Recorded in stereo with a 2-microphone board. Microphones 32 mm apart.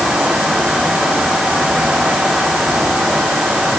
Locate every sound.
Only background noise.